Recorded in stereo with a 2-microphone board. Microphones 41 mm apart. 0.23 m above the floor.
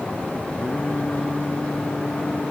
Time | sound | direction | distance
0.6 | singing | 25° left (ahead or behind) | ?